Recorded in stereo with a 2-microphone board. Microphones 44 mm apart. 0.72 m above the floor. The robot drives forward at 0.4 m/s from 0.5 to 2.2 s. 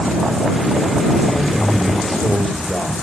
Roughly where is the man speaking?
Centre.